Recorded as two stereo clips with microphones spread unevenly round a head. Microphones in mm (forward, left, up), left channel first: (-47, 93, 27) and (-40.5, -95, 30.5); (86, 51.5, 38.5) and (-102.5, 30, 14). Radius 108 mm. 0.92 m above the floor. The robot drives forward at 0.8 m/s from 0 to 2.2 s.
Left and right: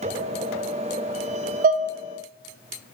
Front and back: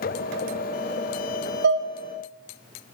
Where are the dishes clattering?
135° right, 0.5 m; by 1.9 s 150° right, 0.7 m.